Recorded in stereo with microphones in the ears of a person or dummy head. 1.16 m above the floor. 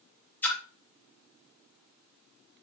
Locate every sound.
0.4 s a splash: 10° left (ahead or behind), 0.6 m